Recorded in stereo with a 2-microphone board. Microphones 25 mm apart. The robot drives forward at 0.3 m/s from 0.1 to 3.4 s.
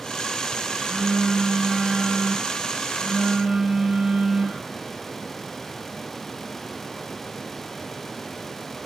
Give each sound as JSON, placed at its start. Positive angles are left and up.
{"t": 0.8, "sound": "a phone buzzing", "side_deg": -65, "distance_m": 5.5}